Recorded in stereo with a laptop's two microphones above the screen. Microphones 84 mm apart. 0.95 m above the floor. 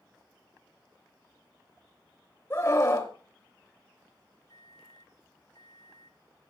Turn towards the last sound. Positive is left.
turn(degrees=55)  # may be behind; listen again after turning